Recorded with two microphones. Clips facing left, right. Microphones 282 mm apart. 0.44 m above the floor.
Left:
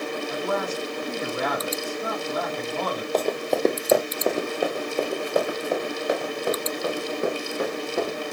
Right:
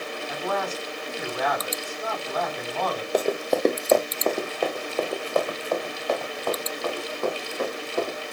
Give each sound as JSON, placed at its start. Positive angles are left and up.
{"t": 0.3, "sound": "a man speaking", "side_deg": 30, "distance_m": 4.0}
{"t": 3.1, "sound": "running footsteps", "side_deg": -10, "distance_m": 0.8}